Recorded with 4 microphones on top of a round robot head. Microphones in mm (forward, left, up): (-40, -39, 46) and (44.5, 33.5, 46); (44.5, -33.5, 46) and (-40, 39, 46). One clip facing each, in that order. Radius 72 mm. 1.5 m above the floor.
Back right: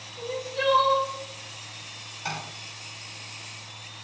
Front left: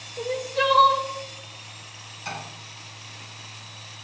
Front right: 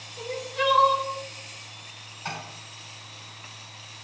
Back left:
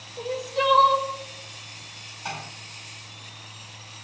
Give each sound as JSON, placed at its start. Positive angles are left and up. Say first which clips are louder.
{"t": 0.2, "sound": "crying", "louder": "front left 5 dB, back left 3 dB", "azimuth_deg": 80, "distance_m": 1.4}
{"t": 2.2, "sound": "tapping", "louder": "back right 1 dB, back left 1 dB", "azimuth_deg": -140, "distance_m": 6.0}